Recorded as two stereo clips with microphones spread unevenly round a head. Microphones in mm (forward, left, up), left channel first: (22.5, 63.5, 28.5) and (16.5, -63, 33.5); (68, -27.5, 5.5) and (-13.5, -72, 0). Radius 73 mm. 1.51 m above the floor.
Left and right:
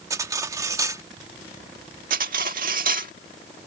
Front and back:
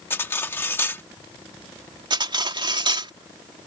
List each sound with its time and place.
0.1 s cutlery clinking: 30° right
2.1 s cutlery clinking: 120° right